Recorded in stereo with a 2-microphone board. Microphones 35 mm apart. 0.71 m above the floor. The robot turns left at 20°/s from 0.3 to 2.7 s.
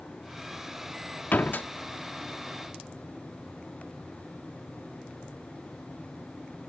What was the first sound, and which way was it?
A door slam, 60° left (ahead or behind).